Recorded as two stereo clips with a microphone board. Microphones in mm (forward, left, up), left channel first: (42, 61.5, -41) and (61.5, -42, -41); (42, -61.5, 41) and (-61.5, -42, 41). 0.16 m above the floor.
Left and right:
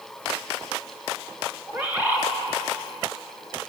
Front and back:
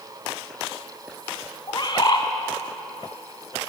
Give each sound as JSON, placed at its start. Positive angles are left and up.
{"t": 1.7, "sound": "a bird", "azimuth_deg": -15, "distance_m": 0.7}